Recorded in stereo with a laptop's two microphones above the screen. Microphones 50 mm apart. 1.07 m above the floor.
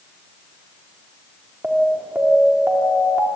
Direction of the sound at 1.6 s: 35° right (ahead or behind).